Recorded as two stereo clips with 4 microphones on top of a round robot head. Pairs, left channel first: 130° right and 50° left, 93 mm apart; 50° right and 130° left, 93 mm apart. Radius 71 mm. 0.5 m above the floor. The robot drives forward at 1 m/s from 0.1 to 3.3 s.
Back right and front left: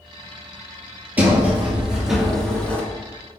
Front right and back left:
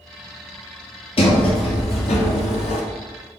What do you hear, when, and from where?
1.2 s a sliding door: 20° right, 2.5 m; by 2.8 s 55° right, 1.2 m